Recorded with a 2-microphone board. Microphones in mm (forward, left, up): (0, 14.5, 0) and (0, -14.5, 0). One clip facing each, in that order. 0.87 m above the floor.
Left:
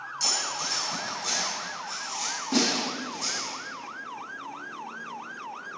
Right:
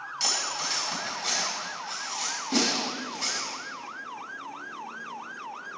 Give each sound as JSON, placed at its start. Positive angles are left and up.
{"t": 0.2, "sound": "cutlery clinking", "side_deg": -45, "distance_m": 3.0}
{"t": 2.5, "sound": "a snare drum", "side_deg": 15, "distance_m": 3.5}